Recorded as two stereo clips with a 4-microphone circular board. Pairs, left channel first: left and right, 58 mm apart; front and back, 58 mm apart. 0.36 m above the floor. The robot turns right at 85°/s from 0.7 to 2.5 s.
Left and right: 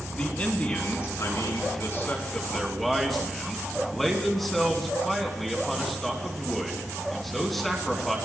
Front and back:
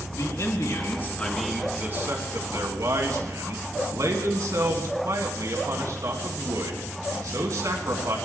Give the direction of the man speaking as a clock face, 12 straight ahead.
11 o'clock.